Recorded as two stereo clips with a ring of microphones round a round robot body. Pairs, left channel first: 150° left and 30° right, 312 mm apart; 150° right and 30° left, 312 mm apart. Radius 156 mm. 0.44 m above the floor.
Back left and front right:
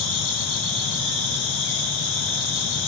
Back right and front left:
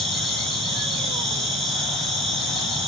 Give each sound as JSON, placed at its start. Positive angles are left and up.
{"t": 0.0, "sound": "an insect", "azimuth_deg": 120, "distance_m": 4.0}